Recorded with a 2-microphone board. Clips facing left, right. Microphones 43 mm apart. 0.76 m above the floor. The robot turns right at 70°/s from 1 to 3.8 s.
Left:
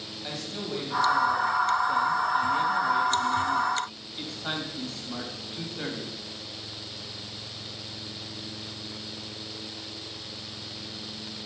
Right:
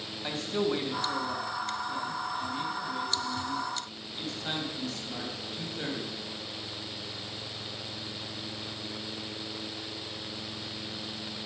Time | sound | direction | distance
0.2 | a man speaking | 25° right | 3.5 m